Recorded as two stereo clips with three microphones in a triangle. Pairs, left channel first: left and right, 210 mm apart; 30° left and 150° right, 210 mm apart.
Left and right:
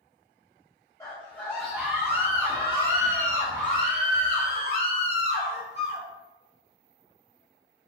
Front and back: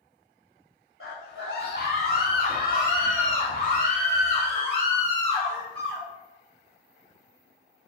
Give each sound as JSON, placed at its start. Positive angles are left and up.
{"t": 1.0, "sound": "a scream", "azimuth_deg": 15, "distance_m": 1.5}